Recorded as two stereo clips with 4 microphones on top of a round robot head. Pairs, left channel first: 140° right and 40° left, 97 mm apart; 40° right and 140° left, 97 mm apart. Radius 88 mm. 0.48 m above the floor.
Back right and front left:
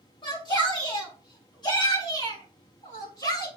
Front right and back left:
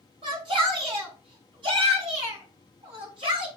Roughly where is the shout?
Behind.